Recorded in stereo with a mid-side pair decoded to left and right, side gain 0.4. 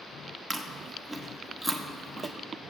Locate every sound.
0.5 s chewing: 5° right, 1.3 m